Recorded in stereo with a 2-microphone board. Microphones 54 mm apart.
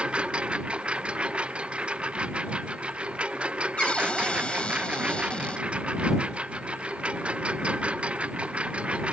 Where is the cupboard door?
20° left (ahead or behind).